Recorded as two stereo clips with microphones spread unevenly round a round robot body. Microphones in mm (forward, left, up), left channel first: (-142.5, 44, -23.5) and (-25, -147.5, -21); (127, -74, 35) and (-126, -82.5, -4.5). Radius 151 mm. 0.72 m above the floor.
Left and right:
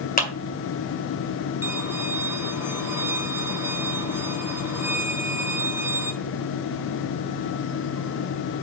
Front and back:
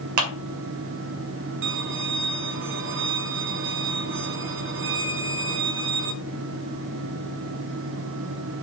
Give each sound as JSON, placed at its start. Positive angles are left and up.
{"t": 0.2, "sound": "a clap", "azimuth_deg": 175, "distance_m": 1.9}
{"t": 1.6, "sound": "a violin", "azimuth_deg": -135, "distance_m": 3.0}